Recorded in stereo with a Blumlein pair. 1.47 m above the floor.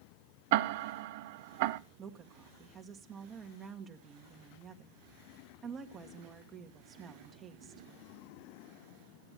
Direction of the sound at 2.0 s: 25° right.